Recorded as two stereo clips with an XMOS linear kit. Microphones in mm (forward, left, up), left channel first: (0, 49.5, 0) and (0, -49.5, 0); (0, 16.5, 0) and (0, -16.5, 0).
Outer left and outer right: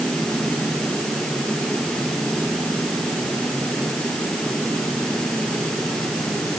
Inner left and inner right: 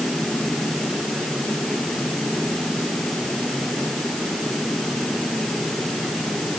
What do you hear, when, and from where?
Only background noise.